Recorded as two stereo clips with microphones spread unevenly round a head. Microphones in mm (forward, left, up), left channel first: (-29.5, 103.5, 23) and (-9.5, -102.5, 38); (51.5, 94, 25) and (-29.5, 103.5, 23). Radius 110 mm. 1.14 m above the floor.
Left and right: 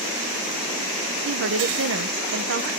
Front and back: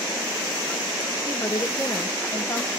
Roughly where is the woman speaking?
Right.